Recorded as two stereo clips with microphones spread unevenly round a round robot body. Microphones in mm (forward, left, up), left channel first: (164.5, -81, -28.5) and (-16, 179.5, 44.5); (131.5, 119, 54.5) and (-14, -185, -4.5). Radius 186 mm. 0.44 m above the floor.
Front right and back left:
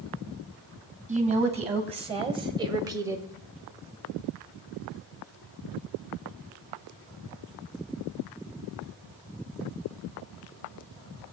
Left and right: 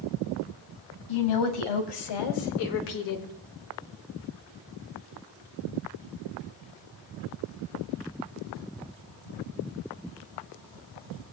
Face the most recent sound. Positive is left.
turn(degrees=35)